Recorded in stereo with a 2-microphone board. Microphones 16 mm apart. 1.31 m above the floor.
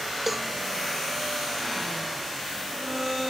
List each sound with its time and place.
0.3 s a cowbell: 15° right (ahead or behind)